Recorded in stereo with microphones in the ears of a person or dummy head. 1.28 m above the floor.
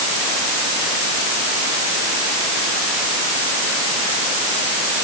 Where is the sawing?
No sawing in this recording.